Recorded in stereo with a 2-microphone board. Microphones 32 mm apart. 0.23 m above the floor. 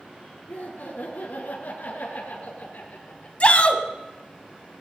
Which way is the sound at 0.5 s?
60° left (ahead or behind).